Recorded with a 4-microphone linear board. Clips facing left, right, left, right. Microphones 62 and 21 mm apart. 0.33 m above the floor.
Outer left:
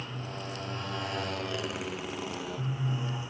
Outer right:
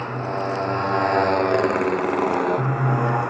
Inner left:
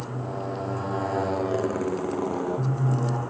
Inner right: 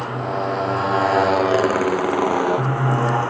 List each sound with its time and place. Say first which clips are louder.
0.0 s a motorcycle: outer right 14 dB, inner right 9 dB; 50° right (ahead or behind); by 3.3 s 65° right (ahead or behind)